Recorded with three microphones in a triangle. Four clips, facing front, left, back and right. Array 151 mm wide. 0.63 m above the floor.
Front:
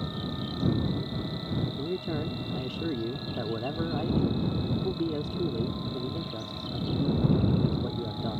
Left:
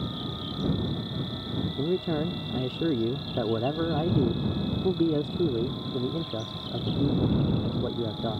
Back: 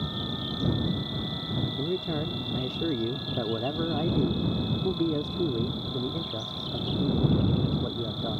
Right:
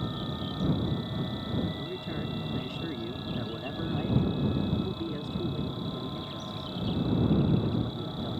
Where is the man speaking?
100° left.